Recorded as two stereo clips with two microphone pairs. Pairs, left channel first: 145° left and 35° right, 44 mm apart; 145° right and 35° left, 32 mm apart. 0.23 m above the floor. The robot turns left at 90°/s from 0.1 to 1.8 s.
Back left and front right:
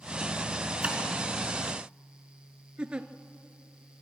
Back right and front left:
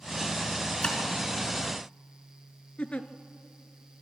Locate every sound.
0.8 s tapping: 90° right, 3.5 m; by 1.0 s 105° right, 3.5 m
2.8 s a giggle: 95° right, 1.1 m